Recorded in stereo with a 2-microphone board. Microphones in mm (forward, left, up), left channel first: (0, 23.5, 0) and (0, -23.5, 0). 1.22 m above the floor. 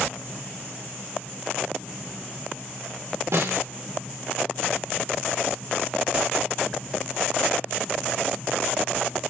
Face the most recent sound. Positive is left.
turn(degrees=-70)  # may be behind; listen again after turning